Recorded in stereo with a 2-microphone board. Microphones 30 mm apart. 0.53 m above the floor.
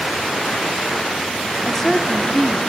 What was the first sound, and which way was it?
A woman speaking, 20° left (ahead or behind).